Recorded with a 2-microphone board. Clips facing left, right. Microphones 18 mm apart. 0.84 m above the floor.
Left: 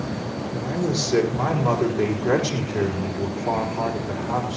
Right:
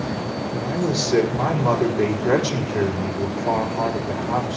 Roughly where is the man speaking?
Centre.